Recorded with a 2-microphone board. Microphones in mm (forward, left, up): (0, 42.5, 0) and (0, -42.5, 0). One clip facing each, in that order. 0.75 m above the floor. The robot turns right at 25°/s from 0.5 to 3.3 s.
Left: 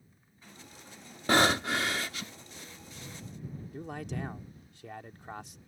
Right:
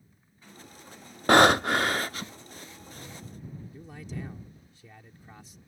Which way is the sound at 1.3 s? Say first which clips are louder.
Right 7 dB; 65° right (ahead or behind).